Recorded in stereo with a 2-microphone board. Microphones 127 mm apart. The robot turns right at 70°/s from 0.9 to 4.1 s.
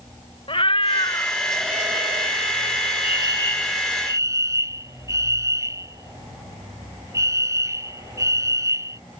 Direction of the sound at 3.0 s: 130° left.